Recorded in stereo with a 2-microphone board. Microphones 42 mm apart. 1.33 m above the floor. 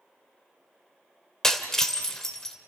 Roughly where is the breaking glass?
Centre.